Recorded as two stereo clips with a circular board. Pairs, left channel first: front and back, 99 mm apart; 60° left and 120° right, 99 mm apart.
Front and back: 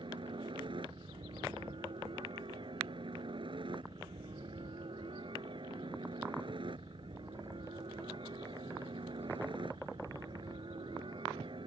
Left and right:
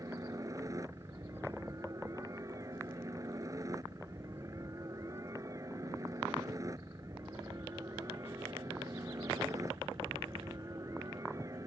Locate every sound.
0.0 s a helicopter: 170° right